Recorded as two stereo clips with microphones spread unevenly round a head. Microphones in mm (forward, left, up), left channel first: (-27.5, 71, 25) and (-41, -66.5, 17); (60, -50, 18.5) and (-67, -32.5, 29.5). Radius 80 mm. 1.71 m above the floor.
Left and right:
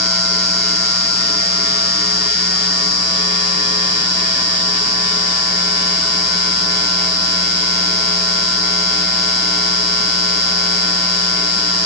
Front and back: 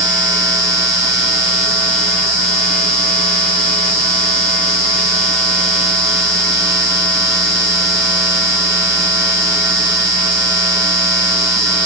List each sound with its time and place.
Only background noise.